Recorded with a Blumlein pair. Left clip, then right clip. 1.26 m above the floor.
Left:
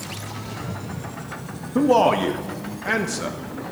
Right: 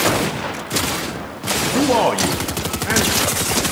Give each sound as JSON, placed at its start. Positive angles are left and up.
{"t": 1.8, "sound": "a man speaking", "azimuth_deg": 0, "distance_m": 0.7}